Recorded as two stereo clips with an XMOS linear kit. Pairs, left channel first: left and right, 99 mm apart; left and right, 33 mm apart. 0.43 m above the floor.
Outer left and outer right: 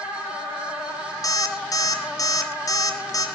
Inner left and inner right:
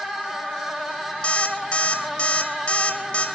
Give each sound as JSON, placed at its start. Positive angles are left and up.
{"t": 1.2, "sound": "an alarm clock", "side_deg": 40, "distance_m": 2.5}